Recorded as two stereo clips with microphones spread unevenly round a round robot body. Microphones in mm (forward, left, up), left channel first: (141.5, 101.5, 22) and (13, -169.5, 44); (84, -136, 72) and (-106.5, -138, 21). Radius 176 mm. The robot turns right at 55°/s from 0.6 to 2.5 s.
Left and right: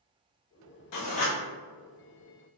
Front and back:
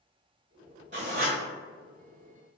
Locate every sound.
0.9 s writing: 105° left, 0.5 m; by 1.4 s 130° left, 0.5 m